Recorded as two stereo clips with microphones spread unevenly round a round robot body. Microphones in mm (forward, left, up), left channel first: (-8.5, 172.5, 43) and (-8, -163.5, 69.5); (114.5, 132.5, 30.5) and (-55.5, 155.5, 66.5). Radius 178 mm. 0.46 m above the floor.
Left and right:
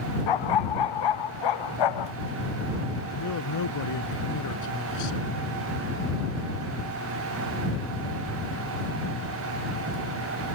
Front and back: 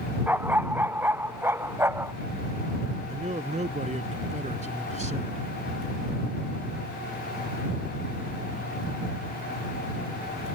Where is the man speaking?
125° left.